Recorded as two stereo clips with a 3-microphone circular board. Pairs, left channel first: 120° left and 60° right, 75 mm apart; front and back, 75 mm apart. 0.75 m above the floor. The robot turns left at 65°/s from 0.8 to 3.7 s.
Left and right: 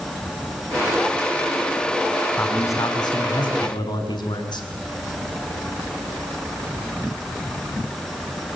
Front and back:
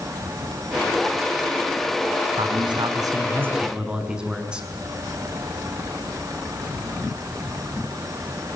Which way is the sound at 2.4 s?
170° right.